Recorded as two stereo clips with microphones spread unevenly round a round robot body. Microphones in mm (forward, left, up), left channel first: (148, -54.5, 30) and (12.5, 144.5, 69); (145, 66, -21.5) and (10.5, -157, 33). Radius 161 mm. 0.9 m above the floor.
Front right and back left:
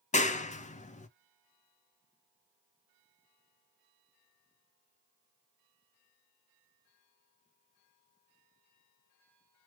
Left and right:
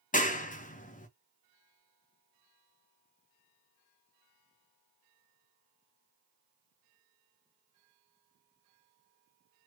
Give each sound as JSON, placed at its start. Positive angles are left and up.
{"t": 0.1, "sound": "a clap", "azimuth_deg": 0, "distance_m": 1.0}